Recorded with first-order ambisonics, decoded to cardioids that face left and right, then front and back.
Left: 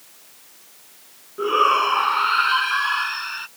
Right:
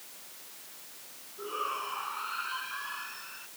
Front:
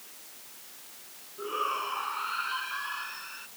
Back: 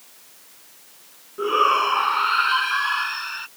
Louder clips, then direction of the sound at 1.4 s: Left 17 dB, back 13 dB; 130° left.